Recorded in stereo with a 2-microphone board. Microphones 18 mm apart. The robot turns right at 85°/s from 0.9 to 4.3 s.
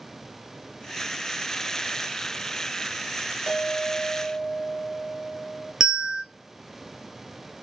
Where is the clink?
105° right, 0.9 m; by 5.7 s 30° right, 0.9 m.